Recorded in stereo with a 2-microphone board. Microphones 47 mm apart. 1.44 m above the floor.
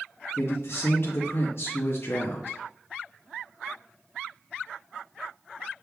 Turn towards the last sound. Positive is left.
turn(degrees=55)  # may be behind; listen again after turning